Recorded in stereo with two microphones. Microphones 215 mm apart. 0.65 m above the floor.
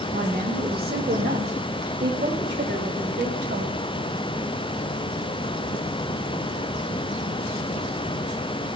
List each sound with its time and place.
0.1 s a woman speaking: 40° right (ahead or behind), 2 m; by 3.8 s 60° right (ahead or behind), 4.5 m